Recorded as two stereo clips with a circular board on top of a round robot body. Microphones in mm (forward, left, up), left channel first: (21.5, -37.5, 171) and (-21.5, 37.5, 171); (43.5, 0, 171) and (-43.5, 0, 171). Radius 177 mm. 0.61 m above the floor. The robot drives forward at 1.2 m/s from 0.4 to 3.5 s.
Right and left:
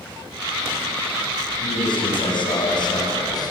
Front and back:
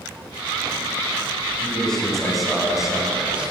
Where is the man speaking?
80° right, 6 m; by 3.5 s 100° right, 6.5 m.